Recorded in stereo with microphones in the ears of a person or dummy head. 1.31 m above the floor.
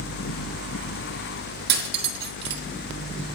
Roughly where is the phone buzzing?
I don't hear a phone buzzing.